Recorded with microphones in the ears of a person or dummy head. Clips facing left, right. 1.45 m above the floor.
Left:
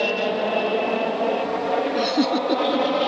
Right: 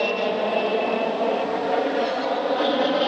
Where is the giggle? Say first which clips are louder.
Left 3 dB; 80° left.